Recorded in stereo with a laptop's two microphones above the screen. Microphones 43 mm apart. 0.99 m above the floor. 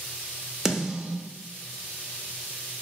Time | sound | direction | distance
0.7 | a snare drum | 15° right (ahead or behind) | 0.5 m